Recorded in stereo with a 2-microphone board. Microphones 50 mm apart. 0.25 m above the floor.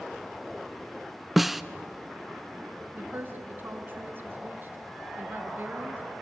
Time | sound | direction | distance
1.4 | a snare drum | 5° right (ahead or behind) | 0.5 m
2.9 | a woman speaking | 40° right (ahead or behind) | 2.5 m